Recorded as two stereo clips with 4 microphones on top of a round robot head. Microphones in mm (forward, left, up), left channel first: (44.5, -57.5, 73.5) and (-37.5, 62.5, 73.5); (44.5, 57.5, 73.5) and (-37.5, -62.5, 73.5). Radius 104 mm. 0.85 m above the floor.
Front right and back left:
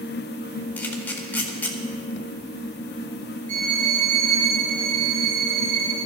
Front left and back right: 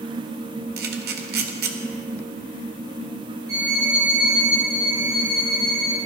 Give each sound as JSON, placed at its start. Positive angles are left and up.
{"t": 0.8, "sound": "a camera shutter", "azimuth_deg": -135, "distance_m": 1.6}
{"t": 3.5, "sound": "a violin", "azimuth_deg": 165, "distance_m": 4.0}